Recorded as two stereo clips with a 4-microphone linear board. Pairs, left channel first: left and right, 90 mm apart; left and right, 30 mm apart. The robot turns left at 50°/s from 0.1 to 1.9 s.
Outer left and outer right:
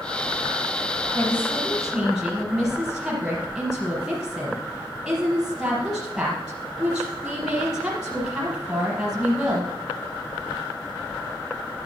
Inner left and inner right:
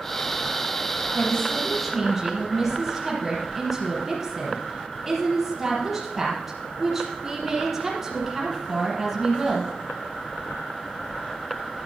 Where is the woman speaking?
30° left, 4 m; by 9.7 s 10° right, 4 m.